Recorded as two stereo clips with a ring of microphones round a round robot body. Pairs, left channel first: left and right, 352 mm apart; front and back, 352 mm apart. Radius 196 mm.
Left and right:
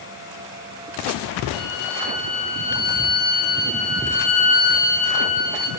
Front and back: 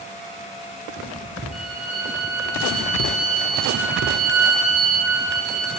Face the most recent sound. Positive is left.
turn(degrees=90)